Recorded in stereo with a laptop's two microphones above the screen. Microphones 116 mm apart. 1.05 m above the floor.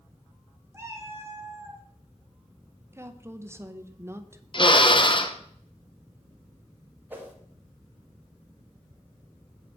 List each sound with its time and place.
0.7 s a cat meowing: 20° right (ahead or behind), 1.1 m
2.9 s a woman speaking: 20° right (ahead or behind), 0.6 m
4.5 s a drill: 45° left (ahead or behind), 0.8 m
7.1 s a whoosh: 15° right (ahead or behind), 1.8 m